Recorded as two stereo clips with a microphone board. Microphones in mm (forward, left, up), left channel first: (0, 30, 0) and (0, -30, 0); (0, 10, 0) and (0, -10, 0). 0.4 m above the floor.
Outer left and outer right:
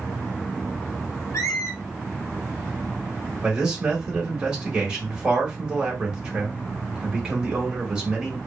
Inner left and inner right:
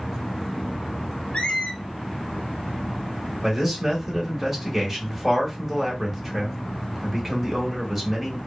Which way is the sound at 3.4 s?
15° right (ahead or behind).